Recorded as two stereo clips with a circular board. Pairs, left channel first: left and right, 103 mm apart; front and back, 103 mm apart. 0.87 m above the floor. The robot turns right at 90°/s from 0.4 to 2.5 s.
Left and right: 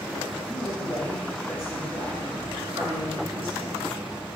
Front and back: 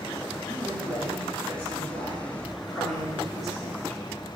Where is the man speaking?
85° left, 4 m; by 4.1 s 90° right, 4 m.